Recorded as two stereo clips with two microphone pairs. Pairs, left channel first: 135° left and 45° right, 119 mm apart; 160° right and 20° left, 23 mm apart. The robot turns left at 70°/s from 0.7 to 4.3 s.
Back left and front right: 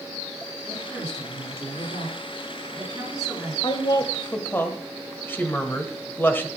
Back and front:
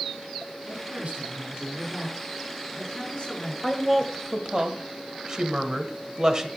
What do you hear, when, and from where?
0.7 s a woman speaking: 45° left, 5.5 m; by 3.5 s 155° right, 5.5 m
3.6 s a woman speaking: 115° left, 1.3 m; by 6.5 s 70° left, 1.3 m